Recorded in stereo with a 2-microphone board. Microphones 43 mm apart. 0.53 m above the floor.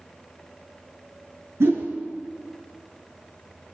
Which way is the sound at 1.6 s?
75° right (ahead or behind).